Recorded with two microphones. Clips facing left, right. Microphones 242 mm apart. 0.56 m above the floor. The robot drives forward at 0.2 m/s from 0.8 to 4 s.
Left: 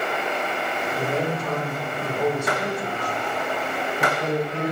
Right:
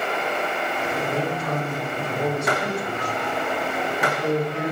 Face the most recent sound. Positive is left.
turn(degrees=65)  # may be behind; listen again after turning